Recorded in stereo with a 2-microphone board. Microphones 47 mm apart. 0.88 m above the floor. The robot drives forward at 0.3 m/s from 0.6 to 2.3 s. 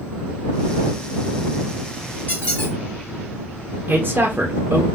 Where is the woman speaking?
50° right (ahead or behind), 0.6 m.